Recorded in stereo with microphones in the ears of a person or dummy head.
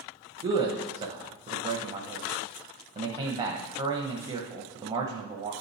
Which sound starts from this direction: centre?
A man speaking, at 0.4 s.